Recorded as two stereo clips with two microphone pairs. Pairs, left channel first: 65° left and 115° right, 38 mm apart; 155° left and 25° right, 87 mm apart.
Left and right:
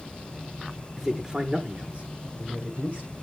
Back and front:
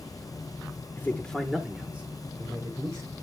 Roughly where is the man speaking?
Behind.